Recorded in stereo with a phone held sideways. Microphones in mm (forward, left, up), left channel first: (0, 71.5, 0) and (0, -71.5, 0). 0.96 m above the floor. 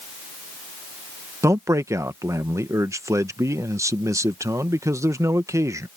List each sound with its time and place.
1.4 s a man speaking: 20° right (ahead or behind)